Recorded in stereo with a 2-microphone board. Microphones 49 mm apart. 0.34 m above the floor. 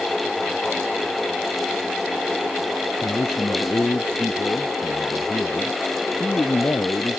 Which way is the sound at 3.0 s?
55° left (ahead or behind).